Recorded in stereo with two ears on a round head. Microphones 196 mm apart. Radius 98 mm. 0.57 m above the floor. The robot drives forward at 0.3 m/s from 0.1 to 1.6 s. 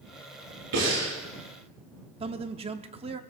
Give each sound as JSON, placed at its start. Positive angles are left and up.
{"t": 0.7, "sound": "breathing", "side_deg": -85, "distance_m": 8.0}
{"t": 2.2, "sound": "a man speaking", "side_deg": -25, "distance_m": 0.7}